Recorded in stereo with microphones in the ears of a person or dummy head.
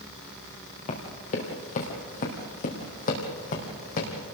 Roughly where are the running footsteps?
Left.